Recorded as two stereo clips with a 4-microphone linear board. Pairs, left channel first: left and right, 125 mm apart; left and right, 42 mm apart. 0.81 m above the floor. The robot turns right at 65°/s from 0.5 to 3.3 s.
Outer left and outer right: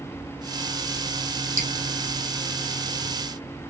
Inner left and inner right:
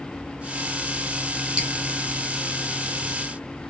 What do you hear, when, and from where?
1.6 s dripping: 25° right (ahead or behind), 2 m; by 1.7 s 15° right (ahead or behind), 2 m